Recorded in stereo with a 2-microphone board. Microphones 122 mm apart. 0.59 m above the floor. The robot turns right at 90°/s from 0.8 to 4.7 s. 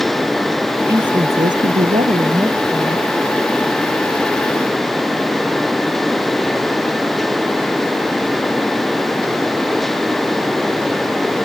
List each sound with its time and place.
0.9 s a woman speaking: 160° right; by 3.1 s 35° left